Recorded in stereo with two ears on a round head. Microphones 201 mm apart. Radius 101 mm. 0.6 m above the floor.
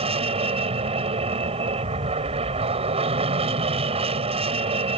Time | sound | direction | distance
0.0 | an aircraft | 25° right (ahead or behind) | ?